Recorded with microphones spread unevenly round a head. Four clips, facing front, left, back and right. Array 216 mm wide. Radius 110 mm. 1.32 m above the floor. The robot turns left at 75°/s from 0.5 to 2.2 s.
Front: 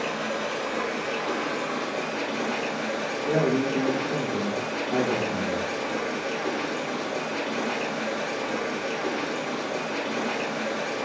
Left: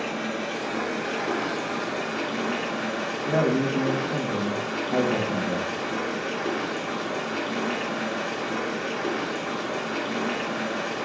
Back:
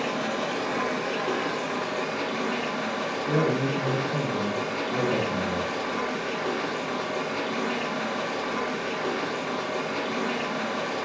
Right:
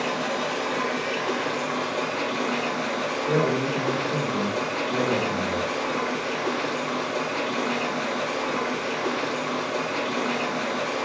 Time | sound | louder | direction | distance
0.0 | running water | right 3 dB, back 1 dB | 165° right | 2 m
3.2 | a man speaking | left 1 dB, front 2 dB | 60° left | 1.7 m